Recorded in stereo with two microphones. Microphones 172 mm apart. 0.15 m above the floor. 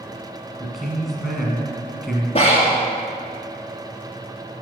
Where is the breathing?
35° left (ahead or behind), 2.5 m.